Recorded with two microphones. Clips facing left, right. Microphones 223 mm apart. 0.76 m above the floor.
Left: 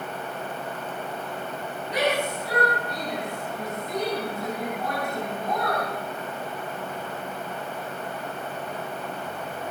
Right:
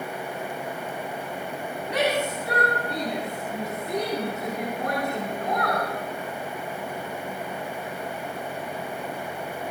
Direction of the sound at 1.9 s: 65° right (ahead or behind).